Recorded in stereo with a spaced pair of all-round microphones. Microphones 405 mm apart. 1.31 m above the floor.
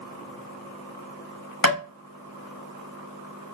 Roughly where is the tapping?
Left.